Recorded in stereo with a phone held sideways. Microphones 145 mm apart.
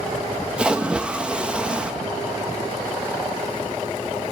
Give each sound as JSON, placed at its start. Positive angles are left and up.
{"t": 0.6, "sound": "a splash", "side_deg": -5, "distance_m": 1.2}